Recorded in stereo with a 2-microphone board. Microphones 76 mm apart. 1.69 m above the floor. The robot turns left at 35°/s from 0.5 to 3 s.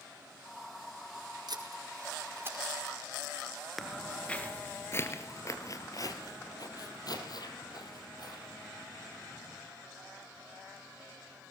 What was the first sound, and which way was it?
Tape being pulled, 65° right (ahead or behind).